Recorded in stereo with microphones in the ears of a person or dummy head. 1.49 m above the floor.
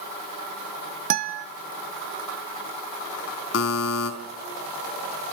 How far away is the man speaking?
I don't hear a man speaking.